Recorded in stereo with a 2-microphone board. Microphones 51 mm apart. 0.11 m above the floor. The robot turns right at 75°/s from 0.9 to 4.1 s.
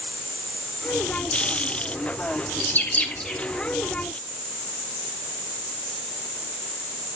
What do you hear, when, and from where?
2.6 s a bird: 45° left (ahead or behind), 1.6 m; by 3.4 s centre (ahead or behind), 1.6 m